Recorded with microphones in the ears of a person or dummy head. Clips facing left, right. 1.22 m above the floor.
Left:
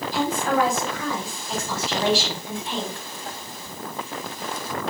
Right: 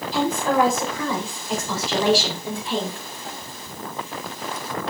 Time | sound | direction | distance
0.1 | a woman speaking | 70° right (ahead or behind) | 4 m